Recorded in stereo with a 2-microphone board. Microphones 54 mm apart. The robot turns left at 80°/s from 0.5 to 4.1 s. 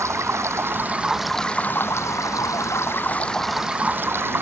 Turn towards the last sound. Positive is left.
turn(degrees=-45)